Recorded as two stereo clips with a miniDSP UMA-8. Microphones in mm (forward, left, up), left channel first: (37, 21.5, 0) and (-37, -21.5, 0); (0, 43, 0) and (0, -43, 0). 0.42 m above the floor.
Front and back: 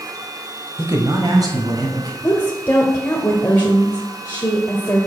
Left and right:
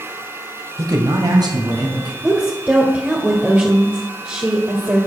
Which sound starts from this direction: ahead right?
A woman speaking, at 2.2 s.